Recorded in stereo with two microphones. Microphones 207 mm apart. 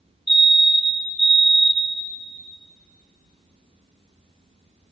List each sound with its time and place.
0.3 s a fire alarm: 60° left (ahead or behind), 1.0 m